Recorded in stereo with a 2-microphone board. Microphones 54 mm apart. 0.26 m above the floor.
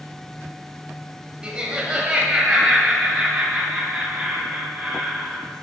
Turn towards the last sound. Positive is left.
turn(degrees=-20)  # may be behind; listen again after turning